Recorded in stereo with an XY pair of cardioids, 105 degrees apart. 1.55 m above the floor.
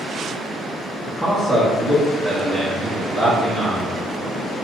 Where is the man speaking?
25° right, 0.9 m.